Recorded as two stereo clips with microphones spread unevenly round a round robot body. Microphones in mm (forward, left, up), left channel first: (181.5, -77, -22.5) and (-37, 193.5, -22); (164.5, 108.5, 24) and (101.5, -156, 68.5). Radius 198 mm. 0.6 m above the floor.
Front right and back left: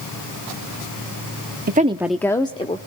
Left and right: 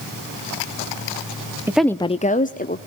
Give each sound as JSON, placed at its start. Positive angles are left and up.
{"t": 1.7, "sound": "a woman speaking", "azimuth_deg": 165, "distance_m": 0.6}